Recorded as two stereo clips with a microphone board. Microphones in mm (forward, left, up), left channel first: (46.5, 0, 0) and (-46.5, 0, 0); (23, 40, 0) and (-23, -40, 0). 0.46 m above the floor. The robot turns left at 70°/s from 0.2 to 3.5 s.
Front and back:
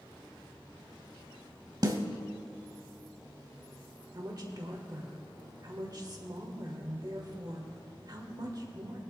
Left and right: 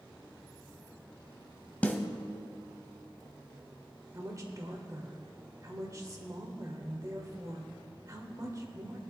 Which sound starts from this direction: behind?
A woman speaking, at 4.1 s.